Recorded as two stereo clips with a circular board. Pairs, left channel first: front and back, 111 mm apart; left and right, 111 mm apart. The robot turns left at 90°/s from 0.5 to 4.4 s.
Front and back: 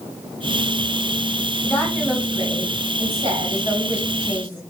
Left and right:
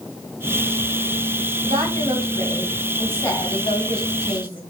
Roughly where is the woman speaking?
Ahead right.